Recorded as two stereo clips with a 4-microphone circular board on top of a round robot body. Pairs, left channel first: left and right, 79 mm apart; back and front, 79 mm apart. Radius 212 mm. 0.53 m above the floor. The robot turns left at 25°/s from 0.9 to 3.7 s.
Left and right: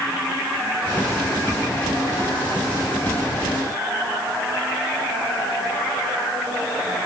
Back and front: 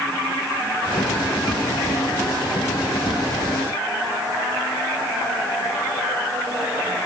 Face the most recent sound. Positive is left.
No sound to turn to.